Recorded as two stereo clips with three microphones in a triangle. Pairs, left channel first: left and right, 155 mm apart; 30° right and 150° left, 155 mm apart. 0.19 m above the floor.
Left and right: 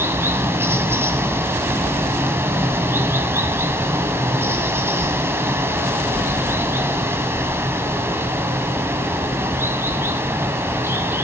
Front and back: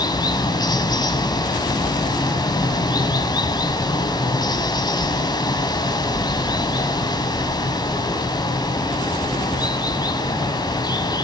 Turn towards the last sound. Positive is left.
turn(degrees=-35)